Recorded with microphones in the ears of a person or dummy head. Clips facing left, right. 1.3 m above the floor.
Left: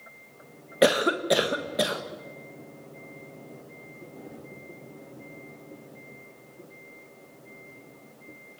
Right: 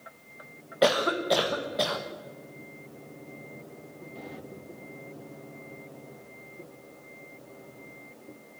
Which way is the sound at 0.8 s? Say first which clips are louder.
Left 2 dB; 30° left (ahead or behind).